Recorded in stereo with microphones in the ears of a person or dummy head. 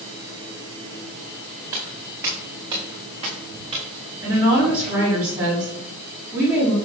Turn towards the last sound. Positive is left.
turn(degrees=-20)  # may be behind; listen again after turning